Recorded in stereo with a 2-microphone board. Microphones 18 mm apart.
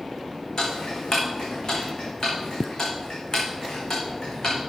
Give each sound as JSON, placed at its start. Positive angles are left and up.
{"t": 0.6, "sound": "ticking", "side_deg": 40, "distance_m": 4.0}